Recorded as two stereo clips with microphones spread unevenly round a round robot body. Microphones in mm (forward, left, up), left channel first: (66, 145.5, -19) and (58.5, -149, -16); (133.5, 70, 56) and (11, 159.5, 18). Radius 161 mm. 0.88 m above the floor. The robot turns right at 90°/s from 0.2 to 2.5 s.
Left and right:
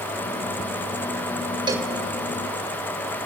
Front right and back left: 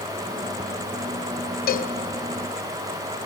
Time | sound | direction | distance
1.7 | a cowbell | 15° right | 1.0 m